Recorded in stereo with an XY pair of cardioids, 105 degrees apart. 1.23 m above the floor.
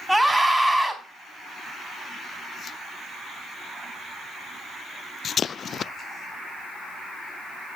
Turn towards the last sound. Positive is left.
turn(degrees=-5)